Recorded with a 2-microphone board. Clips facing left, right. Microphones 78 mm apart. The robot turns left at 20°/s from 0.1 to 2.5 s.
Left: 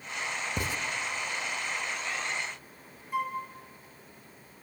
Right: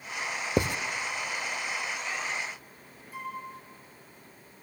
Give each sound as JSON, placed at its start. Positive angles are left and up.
{"t": 0.6, "sound": "writing", "side_deg": -60, "distance_m": 0.8}
{"t": 3.1, "sound": "a flute", "side_deg": 60, "distance_m": 3.5}